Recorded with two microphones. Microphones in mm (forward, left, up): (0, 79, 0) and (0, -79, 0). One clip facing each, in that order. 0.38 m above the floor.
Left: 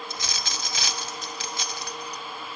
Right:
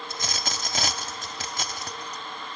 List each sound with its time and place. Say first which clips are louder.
0.1 s a dropped coin: right 2 dB; 50° right (ahead or behind), 0.7 m